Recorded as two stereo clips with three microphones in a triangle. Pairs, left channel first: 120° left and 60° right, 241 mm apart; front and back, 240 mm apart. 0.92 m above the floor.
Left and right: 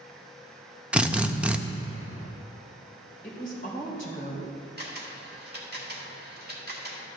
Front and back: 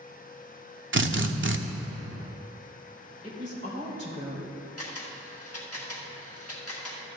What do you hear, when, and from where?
0.9 s a drill: 145° right, 0.6 m
3.2 s a woman speaking: 65° left, 3 m
4.8 s a camera shutter: 15° right, 1.5 m